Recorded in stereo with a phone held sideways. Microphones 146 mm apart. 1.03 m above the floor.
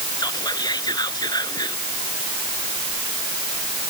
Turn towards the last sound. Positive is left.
turn(degrees=30)  # may be behind; listen again after turning